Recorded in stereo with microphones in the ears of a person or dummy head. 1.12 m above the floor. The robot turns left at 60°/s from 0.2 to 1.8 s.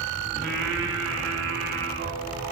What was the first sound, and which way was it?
Singing, 50° right.